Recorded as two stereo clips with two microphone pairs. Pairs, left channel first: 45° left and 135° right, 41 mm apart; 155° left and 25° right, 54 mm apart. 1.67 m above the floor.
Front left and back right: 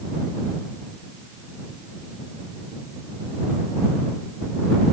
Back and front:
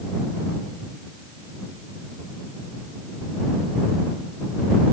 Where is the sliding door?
No sliding door in this recording.